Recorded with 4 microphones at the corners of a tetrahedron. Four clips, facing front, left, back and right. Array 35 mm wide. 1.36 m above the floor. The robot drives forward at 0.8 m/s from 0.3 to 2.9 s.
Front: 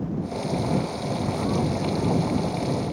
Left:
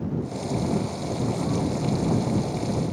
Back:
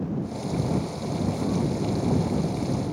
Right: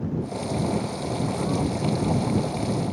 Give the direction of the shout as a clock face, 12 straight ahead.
I don't hear a shout.